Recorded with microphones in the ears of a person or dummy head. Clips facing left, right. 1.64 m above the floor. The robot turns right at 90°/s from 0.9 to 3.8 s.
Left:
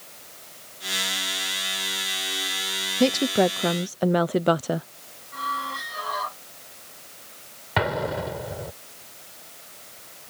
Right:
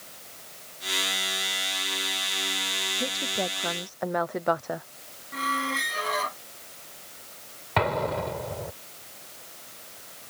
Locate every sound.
3.0 s a woman speaking: 75° left; by 4.9 s 145° left
5.3 s a squeak: 35° right (ahead or behind)
7.8 s an explosion: 10° left (ahead or behind)